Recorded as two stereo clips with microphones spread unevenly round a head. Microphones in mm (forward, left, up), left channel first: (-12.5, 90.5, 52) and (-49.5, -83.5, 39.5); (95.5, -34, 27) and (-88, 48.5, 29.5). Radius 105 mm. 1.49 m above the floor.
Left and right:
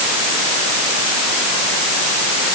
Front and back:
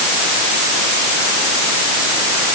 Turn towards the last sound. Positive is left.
No sound to turn to.